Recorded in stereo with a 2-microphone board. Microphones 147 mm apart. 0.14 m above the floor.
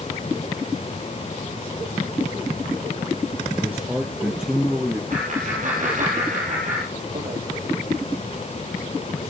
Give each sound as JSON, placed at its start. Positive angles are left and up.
{"t": 3.5, "sound": "a man speaking", "side_deg": -15, "distance_m": 2.5}
{"t": 5.1, "sound": "laughter", "side_deg": -60, "distance_m": 3.0}